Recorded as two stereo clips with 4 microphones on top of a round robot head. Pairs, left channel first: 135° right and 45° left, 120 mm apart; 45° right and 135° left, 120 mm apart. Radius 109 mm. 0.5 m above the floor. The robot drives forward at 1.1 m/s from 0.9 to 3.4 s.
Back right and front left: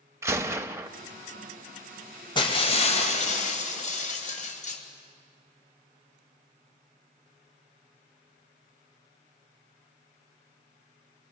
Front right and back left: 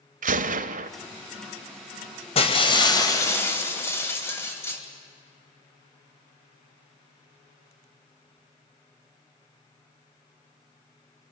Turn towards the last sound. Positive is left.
turn(degrees=-115)